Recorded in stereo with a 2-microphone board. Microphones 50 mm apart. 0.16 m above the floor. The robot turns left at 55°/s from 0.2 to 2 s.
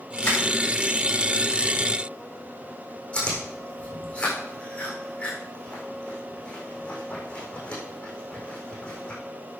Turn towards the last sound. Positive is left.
turn(degrees=25)  # may be behind; listen again after turning